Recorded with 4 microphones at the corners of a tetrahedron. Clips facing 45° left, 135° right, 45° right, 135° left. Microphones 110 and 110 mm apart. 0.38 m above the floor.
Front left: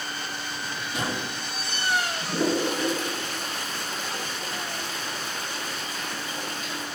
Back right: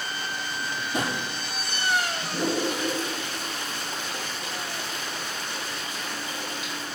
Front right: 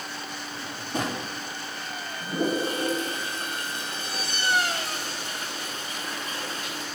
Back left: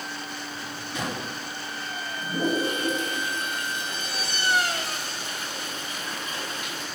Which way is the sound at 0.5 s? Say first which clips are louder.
Back right 5 dB, front right 7 dB; 85° right.